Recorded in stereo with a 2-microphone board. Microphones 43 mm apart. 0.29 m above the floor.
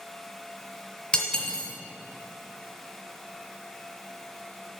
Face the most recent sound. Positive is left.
turn(degrees=25)  # may be behind; listen again after turning